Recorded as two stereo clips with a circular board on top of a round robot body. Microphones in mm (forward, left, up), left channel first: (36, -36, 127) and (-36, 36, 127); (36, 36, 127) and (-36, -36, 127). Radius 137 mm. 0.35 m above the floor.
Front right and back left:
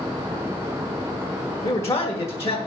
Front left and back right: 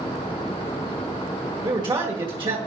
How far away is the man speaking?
About 1.8 m.